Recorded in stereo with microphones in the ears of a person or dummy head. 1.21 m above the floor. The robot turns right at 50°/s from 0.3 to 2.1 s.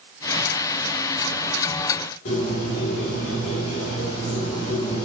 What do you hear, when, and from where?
2.2 s a bird: 60° left (ahead or behind), 3 m